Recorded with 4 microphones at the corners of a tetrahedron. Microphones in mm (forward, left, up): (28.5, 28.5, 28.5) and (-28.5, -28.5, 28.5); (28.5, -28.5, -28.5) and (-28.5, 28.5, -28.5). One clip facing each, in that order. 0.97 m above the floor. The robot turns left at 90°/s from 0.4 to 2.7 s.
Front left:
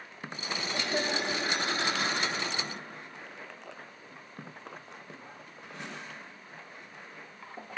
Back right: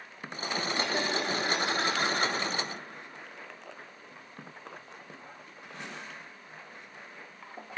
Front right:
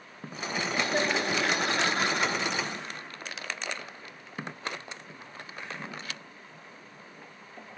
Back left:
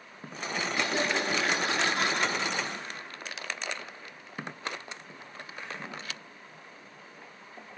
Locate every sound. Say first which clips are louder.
0.7 s laughter: front left 1 dB, front right 2 dB; 20° left, 6.5 m; by 2.3 s 125° right, 6.5 m